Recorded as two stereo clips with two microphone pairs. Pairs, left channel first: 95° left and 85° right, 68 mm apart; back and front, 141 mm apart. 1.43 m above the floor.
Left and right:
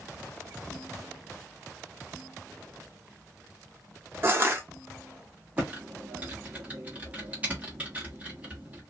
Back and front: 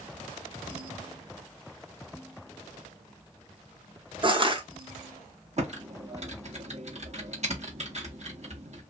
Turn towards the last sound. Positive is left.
turn(degrees=-20)